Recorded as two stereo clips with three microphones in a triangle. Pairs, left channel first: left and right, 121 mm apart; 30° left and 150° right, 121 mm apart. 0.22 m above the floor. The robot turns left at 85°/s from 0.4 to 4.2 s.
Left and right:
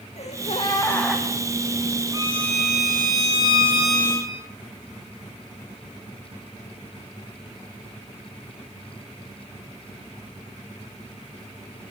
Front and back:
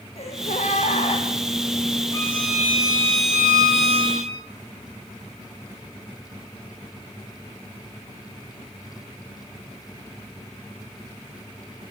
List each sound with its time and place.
0.2 s a gasp: 60° left, 4 m; by 1.2 s 10° right, 4 m
2.1 s a violin: 30° right, 5 m; by 4.3 s 155° left, 5 m